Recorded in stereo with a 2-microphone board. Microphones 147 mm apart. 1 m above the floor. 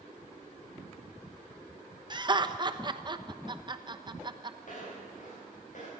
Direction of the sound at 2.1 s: 30° right (ahead or behind).